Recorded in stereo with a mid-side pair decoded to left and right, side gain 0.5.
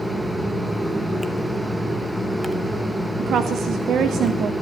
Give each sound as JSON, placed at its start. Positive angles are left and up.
{"t": 0.0, "sound": "a fan", "azimuth_deg": -10, "distance_m": 1.0}
{"t": 3.2, "sound": "a woman speaking", "azimuth_deg": -55, "distance_m": 0.7}